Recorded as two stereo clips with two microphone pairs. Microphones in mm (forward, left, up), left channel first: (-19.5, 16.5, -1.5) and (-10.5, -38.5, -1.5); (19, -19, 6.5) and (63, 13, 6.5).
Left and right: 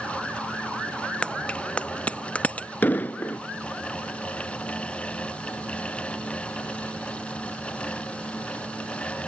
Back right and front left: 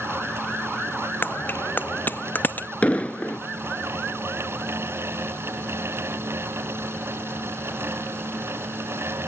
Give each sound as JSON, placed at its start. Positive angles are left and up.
{"t": 1.2, "sound": "a bicycle bell", "azimuth_deg": 165}
{"t": 2.8, "sound": "an explosion", "azimuth_deg": 155}